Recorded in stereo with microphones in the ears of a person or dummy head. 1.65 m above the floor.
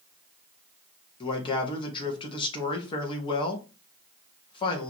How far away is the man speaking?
About 2.5 m.